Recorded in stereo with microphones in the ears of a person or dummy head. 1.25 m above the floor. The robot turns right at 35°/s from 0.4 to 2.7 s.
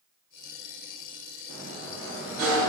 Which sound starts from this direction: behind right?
A sliding door, at 1.5 s.